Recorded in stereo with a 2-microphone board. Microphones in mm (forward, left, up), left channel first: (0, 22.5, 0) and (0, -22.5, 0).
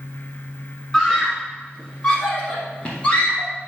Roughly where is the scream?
Centre.